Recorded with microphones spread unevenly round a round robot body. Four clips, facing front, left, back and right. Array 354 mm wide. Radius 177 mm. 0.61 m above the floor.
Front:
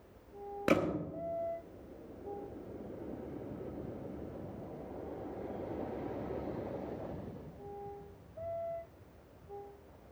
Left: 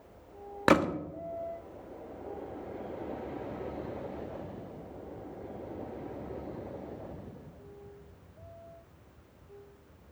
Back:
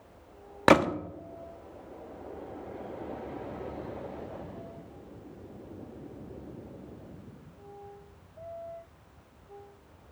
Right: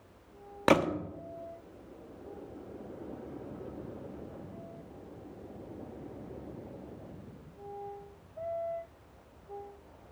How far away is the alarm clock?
I don't hear an alarm clock.